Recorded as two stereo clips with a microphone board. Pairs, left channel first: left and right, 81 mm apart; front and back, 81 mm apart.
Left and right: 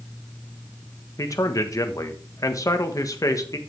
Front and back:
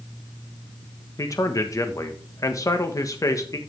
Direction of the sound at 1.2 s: 45° left.